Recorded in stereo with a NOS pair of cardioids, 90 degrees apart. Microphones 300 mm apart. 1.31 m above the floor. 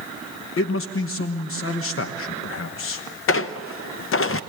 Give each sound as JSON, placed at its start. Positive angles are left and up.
{"t": 0.6, "sound": "a man speaking", "azimuth_deg": 45, "distance_m": 1.1}
{"t": 3.3, "sound": "a squeak", "azimuth_deg": 45, "distance_m": 0.8}